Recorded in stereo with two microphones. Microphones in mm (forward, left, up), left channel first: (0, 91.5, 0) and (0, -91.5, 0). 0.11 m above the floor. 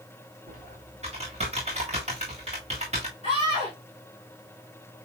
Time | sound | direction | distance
0.5 | typing on a keyboard | 35° right (ahead or behind) | 4 m
3.2 | a scream | 30° right (ahead or behind) | 5.5 m